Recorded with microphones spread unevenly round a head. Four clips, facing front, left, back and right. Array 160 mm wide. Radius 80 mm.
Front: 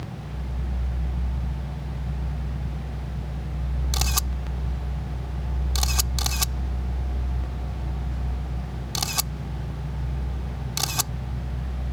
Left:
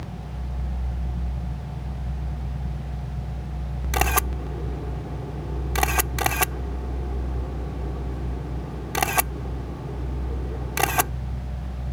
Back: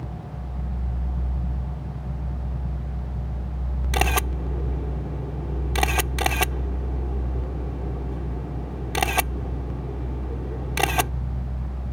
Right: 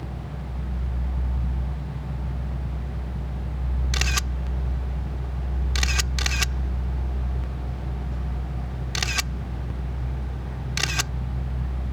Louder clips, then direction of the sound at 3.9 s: Left 9 dB, back 10 dB; 145° left.